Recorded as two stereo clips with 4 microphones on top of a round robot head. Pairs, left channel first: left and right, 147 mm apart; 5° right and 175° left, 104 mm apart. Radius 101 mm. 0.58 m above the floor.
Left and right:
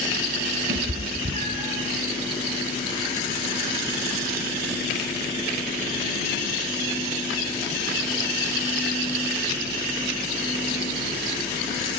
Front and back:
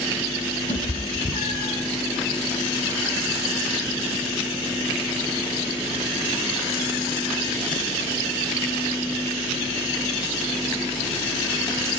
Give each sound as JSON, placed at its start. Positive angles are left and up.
{"t": 0.7, "sound": "a cat meowing", "azimuth_deg": -55, "distance_m": 2.0}